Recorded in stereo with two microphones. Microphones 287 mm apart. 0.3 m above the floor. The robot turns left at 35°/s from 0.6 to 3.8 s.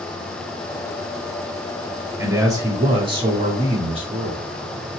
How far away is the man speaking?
About 1.0 m.